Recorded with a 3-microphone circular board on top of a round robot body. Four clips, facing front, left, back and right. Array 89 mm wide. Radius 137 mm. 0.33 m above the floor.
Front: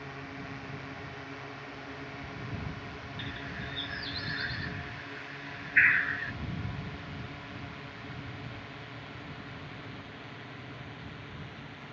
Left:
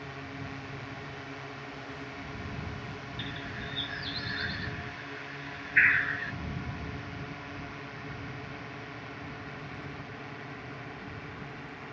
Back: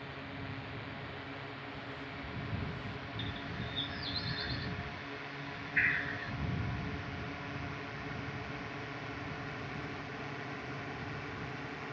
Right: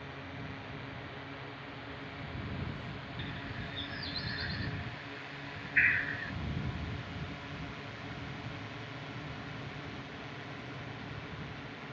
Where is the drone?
45° left; by 11.9 s 150° left.